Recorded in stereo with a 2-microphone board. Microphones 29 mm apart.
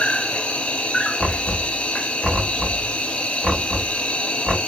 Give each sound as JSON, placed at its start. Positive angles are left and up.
{"t": 0.0, "sound": "an insect", "side_deg": 40, "distance_m": 1.3}
{"t": 1.2, "sound": "knocking", "side_deg": -25, "distance_m": 2.5}